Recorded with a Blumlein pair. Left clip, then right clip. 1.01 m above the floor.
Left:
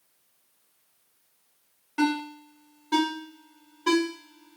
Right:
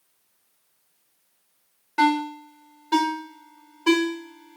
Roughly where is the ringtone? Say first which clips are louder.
Right 6 dB; ahead.